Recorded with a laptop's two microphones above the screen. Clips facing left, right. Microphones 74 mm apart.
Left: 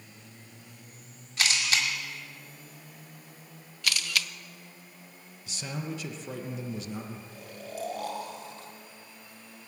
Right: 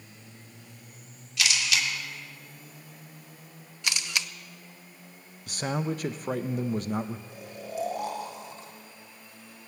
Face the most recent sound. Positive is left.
turn(degrees=-20)  # may be behind; listen again after turning